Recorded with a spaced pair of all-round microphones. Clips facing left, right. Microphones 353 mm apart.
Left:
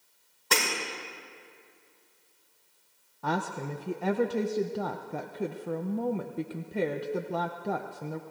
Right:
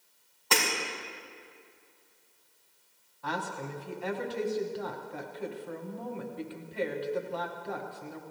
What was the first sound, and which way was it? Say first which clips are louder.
Breaking glass: even; 25° left (ahead or behind).